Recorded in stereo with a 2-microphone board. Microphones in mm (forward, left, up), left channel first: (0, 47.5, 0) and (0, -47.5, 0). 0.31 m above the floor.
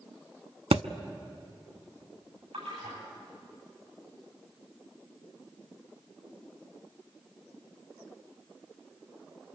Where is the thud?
80° right, 0.6 m.